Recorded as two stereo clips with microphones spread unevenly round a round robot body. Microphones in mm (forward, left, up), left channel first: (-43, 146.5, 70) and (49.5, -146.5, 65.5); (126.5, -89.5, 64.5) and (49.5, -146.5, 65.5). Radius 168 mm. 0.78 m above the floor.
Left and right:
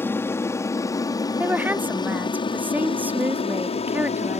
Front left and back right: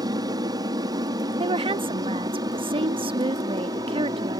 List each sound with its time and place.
0.0 s an aircraft: 170° right; by 4.4 s 170° left
1.4 s a woman speaking: 155° right